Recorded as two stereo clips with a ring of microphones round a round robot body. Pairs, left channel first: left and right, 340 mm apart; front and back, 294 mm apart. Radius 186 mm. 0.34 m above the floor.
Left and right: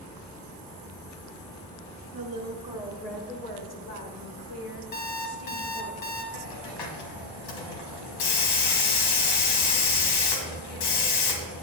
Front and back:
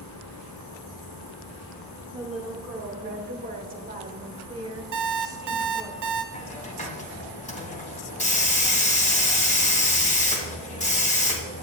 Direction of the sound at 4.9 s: 155° left.